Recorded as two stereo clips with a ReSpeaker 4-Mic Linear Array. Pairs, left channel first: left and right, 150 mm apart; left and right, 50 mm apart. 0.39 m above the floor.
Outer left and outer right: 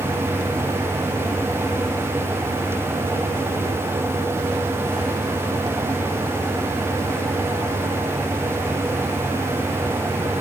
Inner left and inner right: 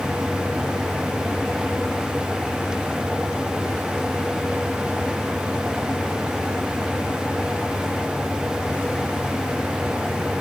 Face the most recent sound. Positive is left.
No sound to turn to.